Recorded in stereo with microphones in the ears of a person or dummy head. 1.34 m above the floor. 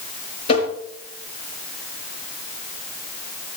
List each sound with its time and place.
0.5 s tapping: 30° left (ahead or behind), 5.5 m